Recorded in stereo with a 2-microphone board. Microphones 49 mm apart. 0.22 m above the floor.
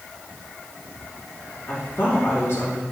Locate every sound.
1.7 s a woman speaking: 65° left (ahead or behind), 3.5 m